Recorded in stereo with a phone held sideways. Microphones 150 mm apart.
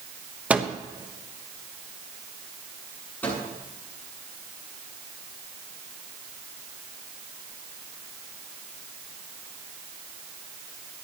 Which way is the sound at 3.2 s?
10° left (ahead or behind).